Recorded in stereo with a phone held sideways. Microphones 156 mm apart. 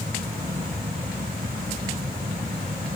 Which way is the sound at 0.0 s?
85° right.